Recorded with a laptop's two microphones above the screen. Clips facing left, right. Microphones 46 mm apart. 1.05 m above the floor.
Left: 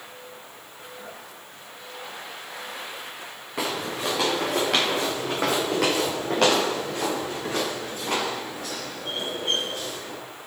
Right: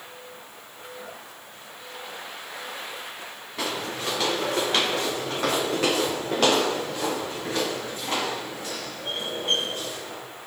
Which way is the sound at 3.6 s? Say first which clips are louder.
Left 2 dB; 75° left (ahead or behind).